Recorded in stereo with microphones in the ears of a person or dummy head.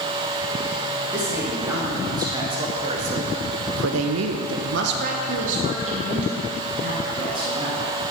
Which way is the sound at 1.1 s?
10° right (ahead or behind).